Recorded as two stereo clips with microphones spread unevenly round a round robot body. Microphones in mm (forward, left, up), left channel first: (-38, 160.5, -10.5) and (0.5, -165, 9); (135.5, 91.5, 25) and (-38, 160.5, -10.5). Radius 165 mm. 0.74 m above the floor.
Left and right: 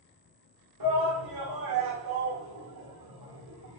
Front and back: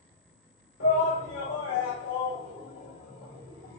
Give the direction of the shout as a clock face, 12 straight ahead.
2 o'clock.